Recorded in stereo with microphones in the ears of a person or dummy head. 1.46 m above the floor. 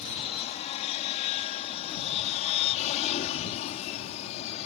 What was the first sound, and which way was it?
An aircraft, 35° left (ahead or behind).